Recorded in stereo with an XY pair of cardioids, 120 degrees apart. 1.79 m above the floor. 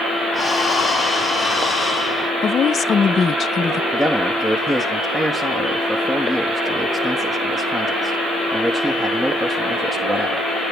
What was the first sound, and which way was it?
Breathing, 20° left.